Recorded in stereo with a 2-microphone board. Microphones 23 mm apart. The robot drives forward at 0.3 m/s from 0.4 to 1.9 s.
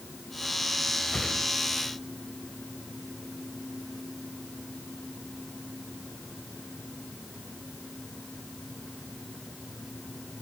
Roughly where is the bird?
I don't hear a bird.